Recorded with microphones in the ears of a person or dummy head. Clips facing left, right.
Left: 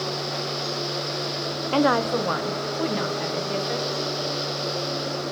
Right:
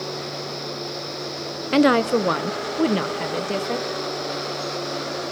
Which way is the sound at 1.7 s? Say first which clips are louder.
Right 5 dB; 20° right (ahead or behind).